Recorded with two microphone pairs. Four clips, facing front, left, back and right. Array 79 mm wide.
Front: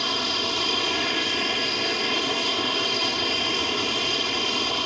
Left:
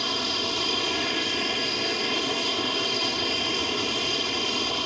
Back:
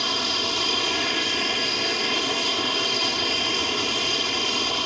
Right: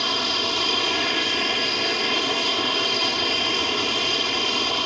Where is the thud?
No thud in this recording.